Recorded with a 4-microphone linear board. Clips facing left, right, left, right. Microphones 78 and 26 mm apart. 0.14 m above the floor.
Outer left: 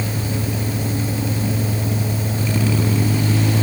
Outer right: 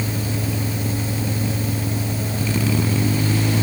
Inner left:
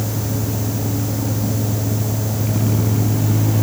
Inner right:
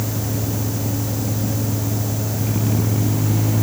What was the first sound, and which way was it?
Only background noise.